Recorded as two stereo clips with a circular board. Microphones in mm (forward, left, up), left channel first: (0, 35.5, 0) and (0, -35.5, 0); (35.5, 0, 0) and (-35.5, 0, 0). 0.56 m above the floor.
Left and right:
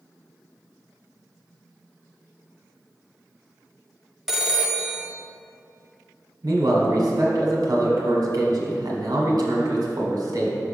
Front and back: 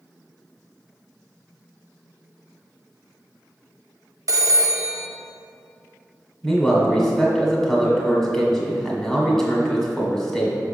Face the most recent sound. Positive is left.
turn(degrees=-80)